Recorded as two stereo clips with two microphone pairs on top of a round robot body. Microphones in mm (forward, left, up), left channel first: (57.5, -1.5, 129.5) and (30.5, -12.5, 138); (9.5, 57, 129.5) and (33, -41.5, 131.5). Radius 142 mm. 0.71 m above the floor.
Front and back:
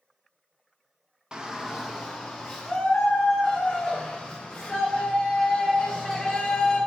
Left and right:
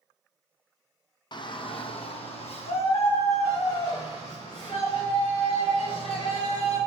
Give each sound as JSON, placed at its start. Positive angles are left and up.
{"t": 1.3, "sound": "a shout", "azimuth_deg": 125, "distance_m": 0.8}